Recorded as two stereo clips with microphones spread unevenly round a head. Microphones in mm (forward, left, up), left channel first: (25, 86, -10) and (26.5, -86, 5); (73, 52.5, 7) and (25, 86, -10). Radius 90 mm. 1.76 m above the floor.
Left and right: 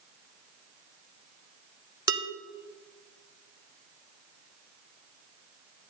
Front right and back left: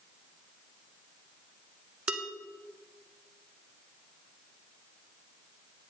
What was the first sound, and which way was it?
Dishes clattering, 125° right.